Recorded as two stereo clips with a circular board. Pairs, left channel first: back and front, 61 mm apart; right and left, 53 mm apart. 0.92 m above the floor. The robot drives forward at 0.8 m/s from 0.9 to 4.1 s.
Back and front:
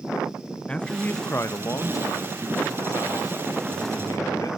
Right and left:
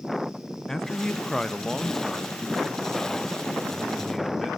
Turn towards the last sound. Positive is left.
turn(degrees=180)